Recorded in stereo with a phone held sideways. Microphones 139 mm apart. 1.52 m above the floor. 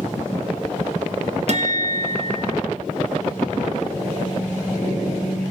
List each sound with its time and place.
1.5 s a guitar: 55° right (ahead or behind), 0.8 m